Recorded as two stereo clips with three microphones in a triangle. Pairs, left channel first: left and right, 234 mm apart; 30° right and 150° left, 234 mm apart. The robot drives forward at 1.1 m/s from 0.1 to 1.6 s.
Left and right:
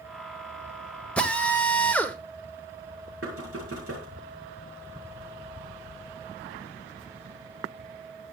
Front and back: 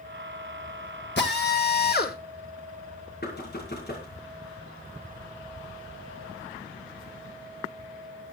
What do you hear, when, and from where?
1.2 s a drill: 5° left, 1.8 m; by 2.2 s 10° left, 1.3 m
3.2 s knocking: 75° right, 6 m